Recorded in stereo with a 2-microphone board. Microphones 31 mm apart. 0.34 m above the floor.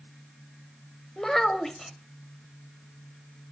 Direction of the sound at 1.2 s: 10° left (ahead or behind).